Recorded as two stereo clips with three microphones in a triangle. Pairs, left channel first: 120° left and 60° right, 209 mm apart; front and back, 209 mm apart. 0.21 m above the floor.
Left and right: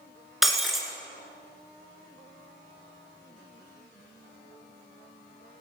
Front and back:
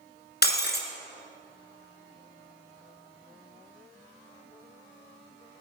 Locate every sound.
0.4 s breaking glass: 30° left, 1.6 m